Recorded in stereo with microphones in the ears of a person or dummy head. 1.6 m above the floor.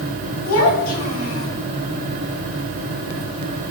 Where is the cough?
No cough in this recording.